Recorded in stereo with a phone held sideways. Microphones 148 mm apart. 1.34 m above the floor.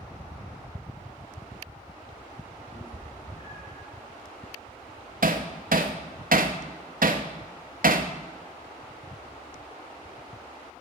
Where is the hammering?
75° right (ahead or behind), 0.8 m.